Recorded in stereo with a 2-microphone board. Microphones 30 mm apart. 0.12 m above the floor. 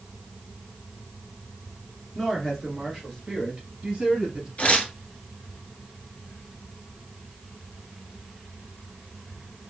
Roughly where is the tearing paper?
Left.